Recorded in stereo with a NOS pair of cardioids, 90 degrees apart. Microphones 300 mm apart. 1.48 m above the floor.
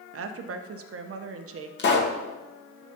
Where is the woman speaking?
50° right, 1.1 m.